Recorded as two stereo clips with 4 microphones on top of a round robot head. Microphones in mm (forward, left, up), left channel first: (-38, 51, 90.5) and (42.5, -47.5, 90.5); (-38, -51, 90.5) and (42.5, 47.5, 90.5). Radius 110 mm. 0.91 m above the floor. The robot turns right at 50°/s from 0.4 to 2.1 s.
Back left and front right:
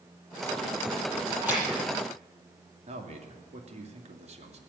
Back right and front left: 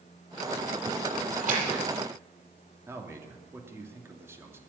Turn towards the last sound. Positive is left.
turn(degrees=-20)